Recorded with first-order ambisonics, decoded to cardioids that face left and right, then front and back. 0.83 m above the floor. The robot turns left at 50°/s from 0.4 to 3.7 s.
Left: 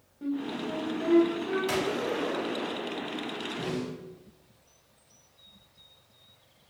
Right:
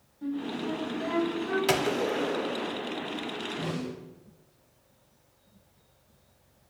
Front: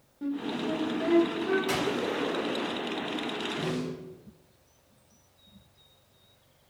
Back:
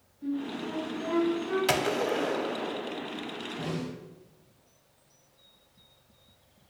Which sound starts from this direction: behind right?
A gunshot, at 1.7 s.